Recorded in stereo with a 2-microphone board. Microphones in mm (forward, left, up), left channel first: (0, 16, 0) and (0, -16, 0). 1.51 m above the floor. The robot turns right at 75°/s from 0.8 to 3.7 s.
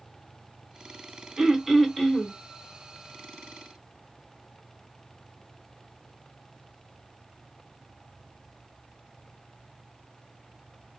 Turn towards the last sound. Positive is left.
turn(degrees=150)